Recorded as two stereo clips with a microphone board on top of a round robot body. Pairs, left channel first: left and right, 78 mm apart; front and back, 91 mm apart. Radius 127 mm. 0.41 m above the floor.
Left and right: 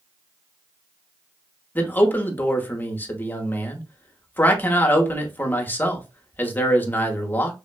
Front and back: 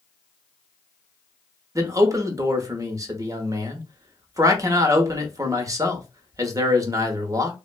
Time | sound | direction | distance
1.8 | a man speaking | 145° left | 1.0 m